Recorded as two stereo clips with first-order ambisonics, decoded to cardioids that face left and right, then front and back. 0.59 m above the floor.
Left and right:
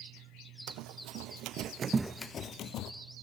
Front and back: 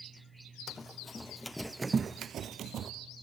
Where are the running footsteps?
70° right, 1.6 m; by 2.9 s 125° left, 1.2 m.